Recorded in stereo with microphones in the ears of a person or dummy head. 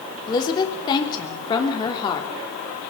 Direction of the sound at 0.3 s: 25° left (ahead or behind).